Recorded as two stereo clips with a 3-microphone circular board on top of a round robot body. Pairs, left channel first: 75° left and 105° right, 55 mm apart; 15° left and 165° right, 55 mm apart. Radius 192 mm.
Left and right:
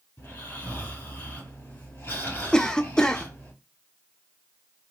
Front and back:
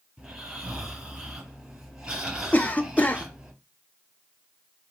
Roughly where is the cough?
Ahead.